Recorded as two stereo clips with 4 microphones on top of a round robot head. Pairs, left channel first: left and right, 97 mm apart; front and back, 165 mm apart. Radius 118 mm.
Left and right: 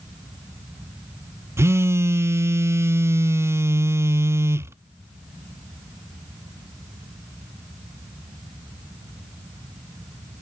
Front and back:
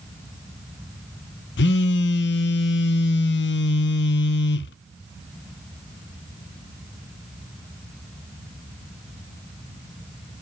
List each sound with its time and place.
1.6 s a phone buzzing: 25° right, 0.5 m